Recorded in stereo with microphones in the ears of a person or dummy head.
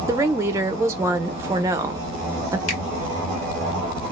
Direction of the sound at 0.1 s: 15° right (ahead or behind).